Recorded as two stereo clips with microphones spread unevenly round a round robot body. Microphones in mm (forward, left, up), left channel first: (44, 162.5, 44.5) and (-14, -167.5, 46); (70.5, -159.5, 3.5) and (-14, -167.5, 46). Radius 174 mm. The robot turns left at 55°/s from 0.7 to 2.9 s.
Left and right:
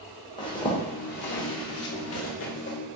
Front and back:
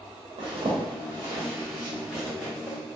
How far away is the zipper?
About 1.0 m.